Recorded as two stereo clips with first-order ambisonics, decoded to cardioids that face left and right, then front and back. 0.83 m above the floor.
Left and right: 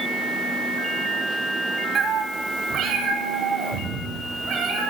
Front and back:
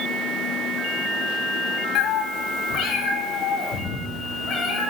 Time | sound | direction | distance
1.9 | a cat meowing | 25° right | 0.7 m